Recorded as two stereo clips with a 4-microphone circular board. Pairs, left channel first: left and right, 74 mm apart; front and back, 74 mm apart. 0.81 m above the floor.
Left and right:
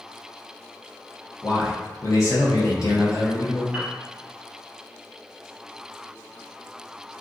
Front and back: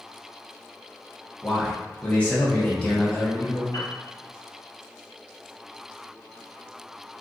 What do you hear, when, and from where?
1.4 s a man speaking: 65° left, 0.7 m
3.7 s a piano: 15° right, 0.8 m